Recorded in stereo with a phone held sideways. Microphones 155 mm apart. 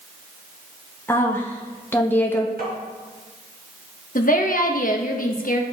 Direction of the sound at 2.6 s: 75° right (ahead or behind).